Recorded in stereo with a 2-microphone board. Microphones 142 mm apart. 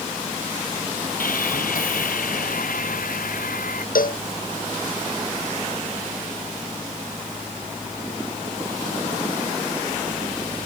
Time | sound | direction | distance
1.2 | sawing | 70° left (ahead or behind) | ?
4.0 | a cowbell | 75° left (ahead or behind) | ?